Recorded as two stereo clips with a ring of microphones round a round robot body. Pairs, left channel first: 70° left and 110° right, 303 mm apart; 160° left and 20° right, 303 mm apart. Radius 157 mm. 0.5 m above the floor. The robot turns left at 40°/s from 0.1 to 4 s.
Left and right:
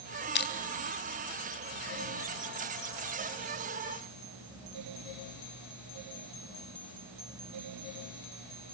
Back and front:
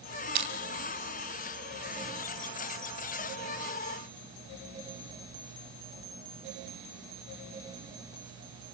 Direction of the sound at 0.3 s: 15° left.